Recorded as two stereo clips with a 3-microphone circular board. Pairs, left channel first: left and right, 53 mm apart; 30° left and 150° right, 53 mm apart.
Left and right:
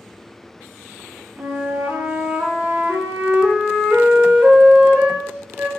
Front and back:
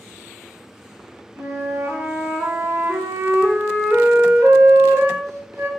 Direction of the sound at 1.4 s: 140° right.